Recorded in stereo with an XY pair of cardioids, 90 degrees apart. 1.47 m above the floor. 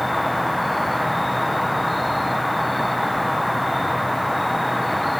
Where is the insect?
5° right.